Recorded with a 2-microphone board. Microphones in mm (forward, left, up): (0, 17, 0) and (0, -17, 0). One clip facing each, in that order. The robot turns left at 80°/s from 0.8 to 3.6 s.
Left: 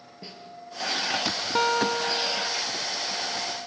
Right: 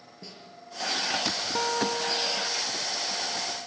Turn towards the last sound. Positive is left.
turn(degrees=-50)